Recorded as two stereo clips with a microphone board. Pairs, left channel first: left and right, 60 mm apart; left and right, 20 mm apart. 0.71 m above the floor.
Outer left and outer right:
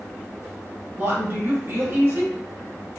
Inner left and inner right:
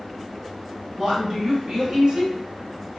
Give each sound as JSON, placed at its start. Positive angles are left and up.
{"t": 1.0, "sound": "a woman speaking", "side_deg": -40, "distance_m": 1.3}